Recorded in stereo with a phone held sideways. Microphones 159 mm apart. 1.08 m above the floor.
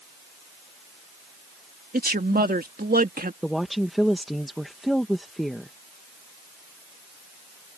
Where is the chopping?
I don't hear chopping.